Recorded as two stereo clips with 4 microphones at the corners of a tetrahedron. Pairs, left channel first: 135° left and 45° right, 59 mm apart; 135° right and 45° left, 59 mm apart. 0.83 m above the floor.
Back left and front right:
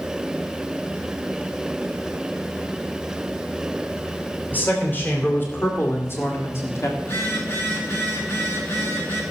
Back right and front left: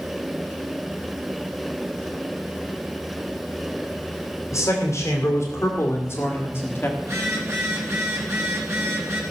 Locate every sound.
4.5 s a man speaking: 170° right, 3 m; by 6.9 s 175° left, 1.6 m
7.0 s a phone buzzing: 90° left, 3.5 m